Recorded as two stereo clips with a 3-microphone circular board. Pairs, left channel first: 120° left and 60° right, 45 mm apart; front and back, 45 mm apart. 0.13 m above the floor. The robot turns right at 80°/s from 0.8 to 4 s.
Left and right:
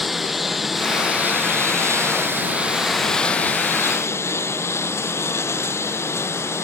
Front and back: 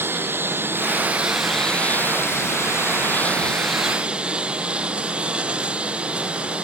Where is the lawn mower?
145° right; by 6.7 s 115° left.